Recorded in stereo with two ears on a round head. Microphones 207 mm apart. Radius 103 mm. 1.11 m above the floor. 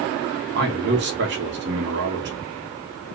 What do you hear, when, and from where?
0.6 s a man speaking: 45° right (ahead or behind), 1.1 m